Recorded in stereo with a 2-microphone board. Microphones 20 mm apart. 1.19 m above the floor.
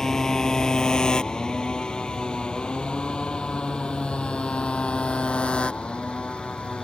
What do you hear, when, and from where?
0.0 s a motorcycle: 35° left (ahead or behind); by 6.9 s 85° left